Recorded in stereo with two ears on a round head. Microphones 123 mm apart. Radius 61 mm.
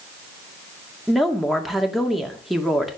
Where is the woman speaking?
Centre (ahead or behind), 2 m.